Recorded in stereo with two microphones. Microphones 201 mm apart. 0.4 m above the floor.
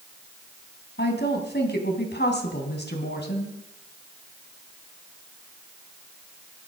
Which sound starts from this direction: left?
A woman speaking, at 1.0 s.